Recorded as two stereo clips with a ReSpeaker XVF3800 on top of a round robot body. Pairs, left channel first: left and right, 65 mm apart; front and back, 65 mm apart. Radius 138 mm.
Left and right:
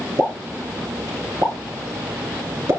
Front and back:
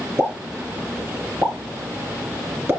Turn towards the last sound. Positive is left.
turn(degrees=-130)